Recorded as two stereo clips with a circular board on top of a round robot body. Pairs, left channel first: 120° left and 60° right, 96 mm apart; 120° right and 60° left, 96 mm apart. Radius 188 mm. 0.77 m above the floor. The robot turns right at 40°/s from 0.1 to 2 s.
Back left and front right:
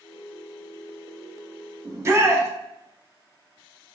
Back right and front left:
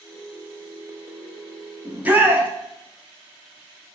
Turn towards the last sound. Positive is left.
turn(degrees=-10)